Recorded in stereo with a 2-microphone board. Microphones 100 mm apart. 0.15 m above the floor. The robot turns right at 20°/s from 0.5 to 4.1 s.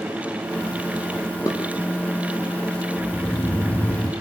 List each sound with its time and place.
1.5 s dishes clattering: 35° left (ahead or behind), 4.5 m; by 1.6 s 30° left (ahead or behind), 4.5 m
3.0 s snoring: 5° left (ahead or behind), 6 m; by 4.1 s 25° left (ahead or behind), 6 m